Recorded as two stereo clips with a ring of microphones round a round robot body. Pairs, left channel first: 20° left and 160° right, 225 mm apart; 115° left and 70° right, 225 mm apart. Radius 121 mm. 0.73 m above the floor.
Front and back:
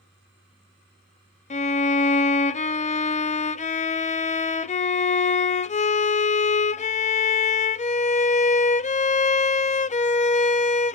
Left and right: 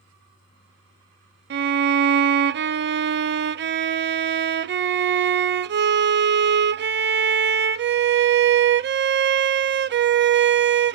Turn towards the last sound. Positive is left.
turn(degrees=-35)